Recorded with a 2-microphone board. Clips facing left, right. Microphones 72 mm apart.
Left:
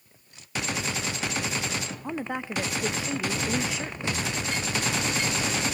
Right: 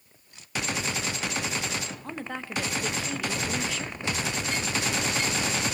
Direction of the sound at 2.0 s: 15° left (ahead or behind).